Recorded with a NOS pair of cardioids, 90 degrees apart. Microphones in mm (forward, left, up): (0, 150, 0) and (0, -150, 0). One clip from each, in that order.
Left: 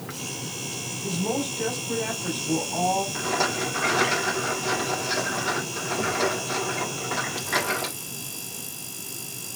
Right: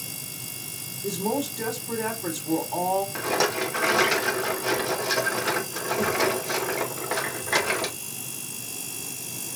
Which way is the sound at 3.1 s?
25° right.